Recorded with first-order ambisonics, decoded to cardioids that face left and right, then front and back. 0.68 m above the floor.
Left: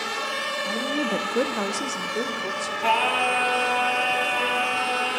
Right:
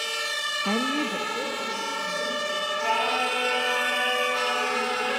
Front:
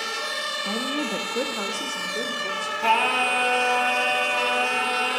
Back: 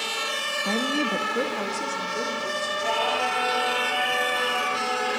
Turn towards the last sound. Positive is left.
turn(degrees=30)